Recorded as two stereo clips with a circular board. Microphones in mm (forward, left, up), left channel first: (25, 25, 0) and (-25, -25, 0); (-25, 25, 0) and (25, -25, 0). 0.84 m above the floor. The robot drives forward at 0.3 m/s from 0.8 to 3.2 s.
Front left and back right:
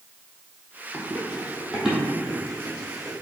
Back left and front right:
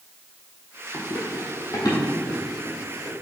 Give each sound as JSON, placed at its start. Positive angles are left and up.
{"t": 0.9, "sound": "running footsteps", "azimuth_deg": 150, "distance_m": 1.3}